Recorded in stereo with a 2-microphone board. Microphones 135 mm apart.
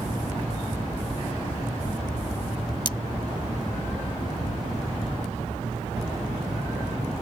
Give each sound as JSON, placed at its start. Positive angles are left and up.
{"t": 2.9, "sound": "cutlery clinking", "side_deg": 35}